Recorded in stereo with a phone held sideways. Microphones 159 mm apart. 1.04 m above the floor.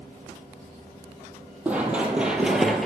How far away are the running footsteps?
About 1.6 m.